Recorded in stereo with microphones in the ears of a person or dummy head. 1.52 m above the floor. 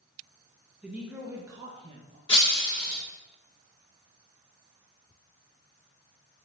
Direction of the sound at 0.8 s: 10° right (ahead or behind).